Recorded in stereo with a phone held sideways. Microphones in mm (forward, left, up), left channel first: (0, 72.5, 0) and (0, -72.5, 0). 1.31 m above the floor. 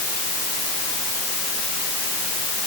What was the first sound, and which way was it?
Only background noise.